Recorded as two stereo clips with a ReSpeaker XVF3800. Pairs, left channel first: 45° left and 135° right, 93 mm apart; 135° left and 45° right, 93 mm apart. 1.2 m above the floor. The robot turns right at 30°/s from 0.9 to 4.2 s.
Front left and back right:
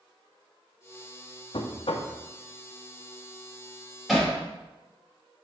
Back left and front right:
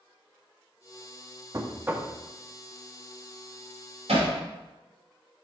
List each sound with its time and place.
1.5 s knocking: 15° left, 0.7 m; by 2.1 s 35° left, 0.7 m
4.1 s hammering: 45° right, 2.5 m